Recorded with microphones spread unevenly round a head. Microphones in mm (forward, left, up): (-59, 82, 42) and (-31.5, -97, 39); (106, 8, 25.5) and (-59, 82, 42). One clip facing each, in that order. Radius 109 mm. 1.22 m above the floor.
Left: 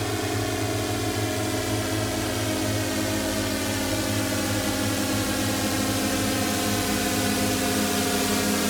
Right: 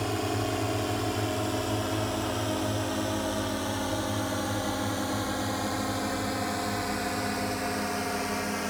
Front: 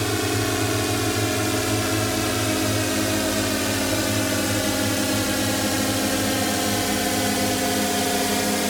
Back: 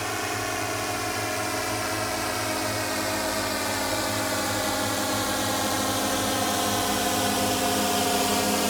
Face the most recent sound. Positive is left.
turn(degrees=55)